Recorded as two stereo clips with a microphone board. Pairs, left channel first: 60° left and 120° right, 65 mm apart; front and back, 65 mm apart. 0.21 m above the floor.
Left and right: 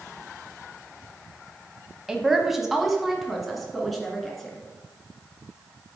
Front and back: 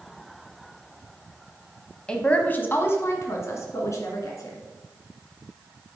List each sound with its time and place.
2.1 s a woman speaking: 50° right, 1.0 m; by 4.6 s 30° right, 2.5 m